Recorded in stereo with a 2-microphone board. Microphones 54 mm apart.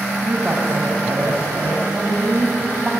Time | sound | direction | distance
0.2 | a woman speaking | 25° right (ahead or behind) | 4 m